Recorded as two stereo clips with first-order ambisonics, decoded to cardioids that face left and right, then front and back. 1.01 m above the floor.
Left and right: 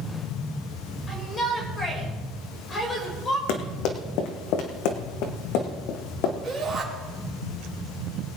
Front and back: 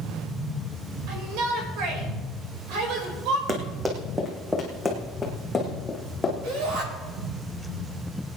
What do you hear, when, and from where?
1.1 s a shout: 160° left, 4.5 m
3.5 s running footsteps: 110° left, 2 m; by 6.3 s 75° left, 3 m
6.4 s a shout: straight behind, 5.5 m